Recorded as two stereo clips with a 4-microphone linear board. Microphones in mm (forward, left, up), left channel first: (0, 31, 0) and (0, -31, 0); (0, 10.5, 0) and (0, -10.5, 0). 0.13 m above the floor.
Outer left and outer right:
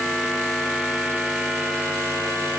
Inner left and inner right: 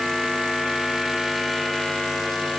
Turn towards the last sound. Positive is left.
No sound to turn to.